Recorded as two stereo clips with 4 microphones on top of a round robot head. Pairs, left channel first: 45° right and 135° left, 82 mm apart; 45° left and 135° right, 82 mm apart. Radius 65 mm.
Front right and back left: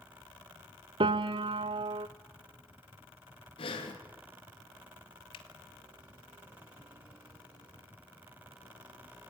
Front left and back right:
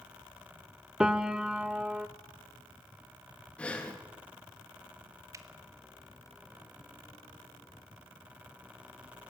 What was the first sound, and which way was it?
A piano, 145° left.